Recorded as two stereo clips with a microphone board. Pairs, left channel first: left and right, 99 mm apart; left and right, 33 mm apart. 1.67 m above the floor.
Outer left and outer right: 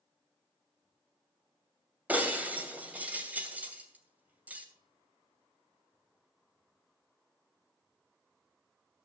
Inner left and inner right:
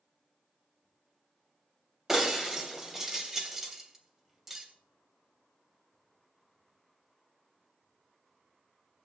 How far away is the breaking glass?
About 2.5 m.